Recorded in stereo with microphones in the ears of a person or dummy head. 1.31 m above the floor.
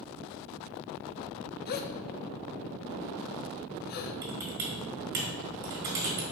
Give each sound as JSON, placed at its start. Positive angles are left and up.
{"t": 1.7, "sound": "a gasp", "side_deg": 50, "distance_m": 0.6}
{"t": 4.2, "sound": "typing on a keyboard", "side_deg": -50, "distance_m": 1.6}